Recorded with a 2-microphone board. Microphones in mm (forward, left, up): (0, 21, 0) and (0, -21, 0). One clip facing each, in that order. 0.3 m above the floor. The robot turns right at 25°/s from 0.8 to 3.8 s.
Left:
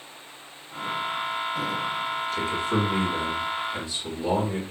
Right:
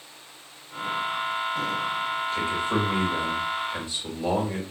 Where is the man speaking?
100° right, 1.6 m; by 4.6 s 60° right, 1.6 m.